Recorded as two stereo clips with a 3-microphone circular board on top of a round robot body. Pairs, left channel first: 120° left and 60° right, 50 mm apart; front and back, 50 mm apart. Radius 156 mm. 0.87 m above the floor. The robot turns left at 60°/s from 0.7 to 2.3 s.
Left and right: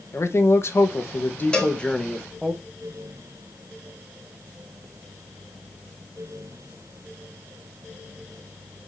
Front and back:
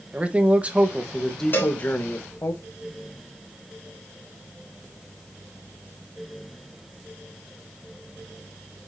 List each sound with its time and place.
0.1 s a man speaking: 120° left, 1.5 m; by 2.5 s 25° left, 1.5 m
1.5 s a cowbell: 50° left, 3.5 m; by 1.8 s 35° left, 3.5 m